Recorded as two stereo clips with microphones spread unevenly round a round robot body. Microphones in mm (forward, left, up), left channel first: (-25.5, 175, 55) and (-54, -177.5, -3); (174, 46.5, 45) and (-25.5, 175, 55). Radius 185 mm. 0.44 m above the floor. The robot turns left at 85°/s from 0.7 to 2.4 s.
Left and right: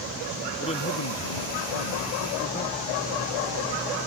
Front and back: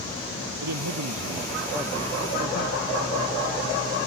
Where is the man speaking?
160° left; by 2.8 s 15° left.